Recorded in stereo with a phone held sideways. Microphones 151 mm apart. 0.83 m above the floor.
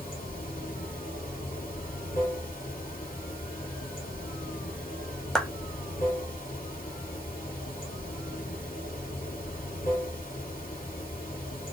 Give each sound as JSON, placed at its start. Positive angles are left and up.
{"t": 0.0, "sound": "running water", "side_deg": 70, "distance_m": 1.9}
{"t": 5.3, "sound": "a clap", "side_deg": 5, "distance_m": 0.6}